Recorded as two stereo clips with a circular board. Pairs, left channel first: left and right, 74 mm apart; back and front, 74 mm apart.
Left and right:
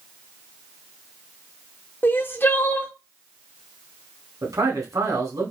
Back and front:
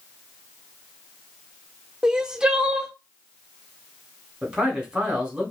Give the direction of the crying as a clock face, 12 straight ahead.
10 o'clock.